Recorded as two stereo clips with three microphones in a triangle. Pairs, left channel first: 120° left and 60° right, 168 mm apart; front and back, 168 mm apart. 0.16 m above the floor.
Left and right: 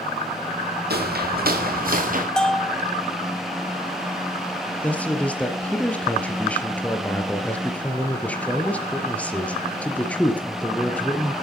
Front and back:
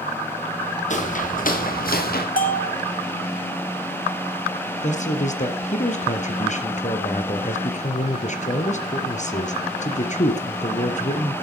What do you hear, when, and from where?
0.9 s footsteps: 45° right, 4.5 m; by 2.3 s 25° right, 5 m
2.4 s a bell: 35° left, 1.7 m
4.8 s a man speaking: 40° left, 3.5 m